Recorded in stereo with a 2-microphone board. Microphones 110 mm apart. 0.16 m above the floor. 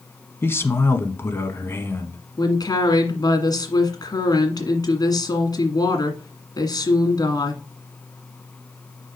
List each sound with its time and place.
0.4 s a man speaking: 20° left (ahead or behind), 1.0 m
2.4 s a woman speaking: 40° left (ahead or behind), 1.7 m